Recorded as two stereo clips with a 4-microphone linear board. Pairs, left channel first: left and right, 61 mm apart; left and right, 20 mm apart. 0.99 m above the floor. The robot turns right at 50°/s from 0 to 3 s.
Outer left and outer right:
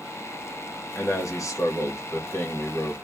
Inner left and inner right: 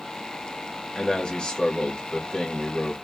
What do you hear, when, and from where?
0.9 s a man speaking: 50° left, 1.6 m; by 2.9 s 150° left, 1.6 m